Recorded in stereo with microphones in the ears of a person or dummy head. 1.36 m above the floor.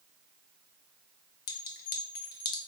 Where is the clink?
50° left (ahead or behind), 0.7 m.